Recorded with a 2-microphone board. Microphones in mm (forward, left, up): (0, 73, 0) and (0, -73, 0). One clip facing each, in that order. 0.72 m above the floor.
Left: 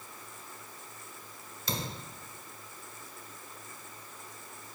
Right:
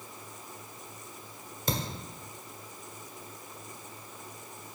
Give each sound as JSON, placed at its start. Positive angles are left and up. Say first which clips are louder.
{"t": 1.7, "sound": "a thud", "louder": "right 3 dB", "side_deg": -50, "distance_m": 1.3}